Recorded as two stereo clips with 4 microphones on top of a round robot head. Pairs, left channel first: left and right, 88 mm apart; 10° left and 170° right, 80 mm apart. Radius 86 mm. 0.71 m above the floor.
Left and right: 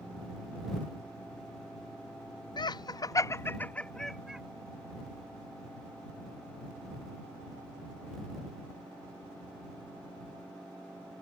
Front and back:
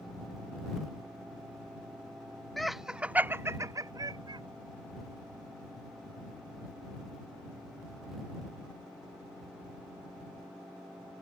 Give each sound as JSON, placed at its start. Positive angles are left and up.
{"t": 2.6, "sound": "laughter", "azimuth_deg": 95}